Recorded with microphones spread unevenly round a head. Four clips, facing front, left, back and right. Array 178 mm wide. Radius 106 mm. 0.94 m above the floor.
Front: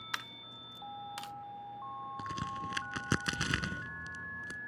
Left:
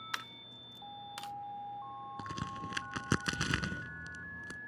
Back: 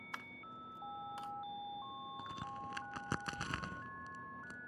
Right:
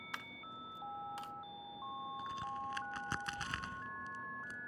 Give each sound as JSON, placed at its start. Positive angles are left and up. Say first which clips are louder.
{"t": 0.1, "sound": "a dropped coin", "louder": "even, front 4 dB", "azimuth_deg": 55}
{"t": 2.2, "sound": "a crack", "louder": "left 2 dB, front 8 dB", "azimuth_deg": 80}